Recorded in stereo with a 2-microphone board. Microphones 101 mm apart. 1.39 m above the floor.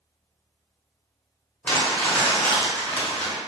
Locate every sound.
1.6 s crumpling: 15° left (ahead or behind), 1.0 m